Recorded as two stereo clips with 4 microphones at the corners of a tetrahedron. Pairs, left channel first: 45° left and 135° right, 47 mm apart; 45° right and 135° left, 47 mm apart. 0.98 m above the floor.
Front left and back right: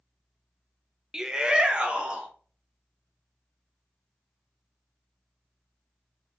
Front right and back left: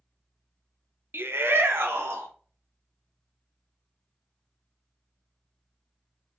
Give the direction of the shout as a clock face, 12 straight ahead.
7 o'clock.